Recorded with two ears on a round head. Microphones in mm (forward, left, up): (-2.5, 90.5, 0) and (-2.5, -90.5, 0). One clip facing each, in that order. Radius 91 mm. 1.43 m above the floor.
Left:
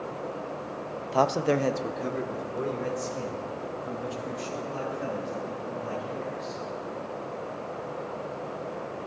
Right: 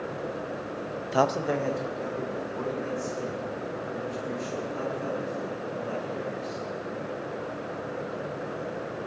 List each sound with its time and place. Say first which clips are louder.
1.1 s a man speaking: left 1 dB; 20° right (ahead or behind), 0.5 m; by 6.6 s 80° left, 8 m